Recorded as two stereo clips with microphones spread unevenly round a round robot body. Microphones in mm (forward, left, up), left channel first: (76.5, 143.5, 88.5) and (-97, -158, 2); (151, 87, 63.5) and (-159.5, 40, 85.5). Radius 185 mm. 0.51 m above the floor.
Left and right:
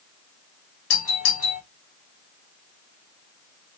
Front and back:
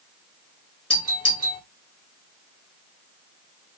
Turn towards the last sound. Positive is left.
turn(degrees=80)